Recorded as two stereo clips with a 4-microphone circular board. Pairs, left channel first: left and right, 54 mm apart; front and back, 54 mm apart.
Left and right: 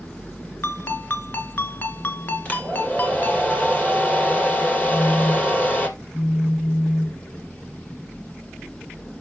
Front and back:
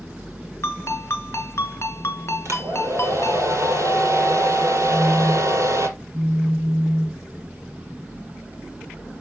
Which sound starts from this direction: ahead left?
A ringtone, at 0.6 s.